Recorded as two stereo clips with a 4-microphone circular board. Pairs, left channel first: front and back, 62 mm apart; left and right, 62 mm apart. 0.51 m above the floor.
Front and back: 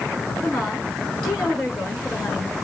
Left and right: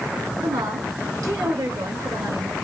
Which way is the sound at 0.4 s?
80° right.